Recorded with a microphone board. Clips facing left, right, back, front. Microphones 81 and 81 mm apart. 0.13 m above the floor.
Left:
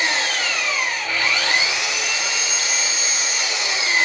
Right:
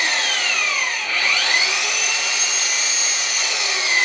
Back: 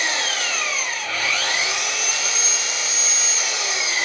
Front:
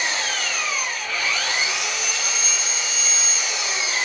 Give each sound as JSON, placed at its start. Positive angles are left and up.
{"t": 0.0, "sound": "an engine running", "azimuth_deg": 155, "distance_m": 1.5}